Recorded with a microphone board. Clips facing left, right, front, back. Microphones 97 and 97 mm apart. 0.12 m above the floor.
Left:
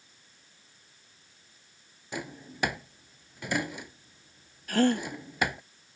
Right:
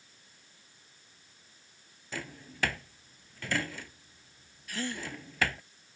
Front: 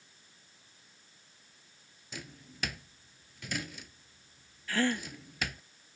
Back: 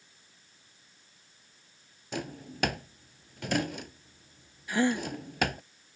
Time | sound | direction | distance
2.1 | a drawer | 160° left | ?
4.7 | a gasp | 110° left | ?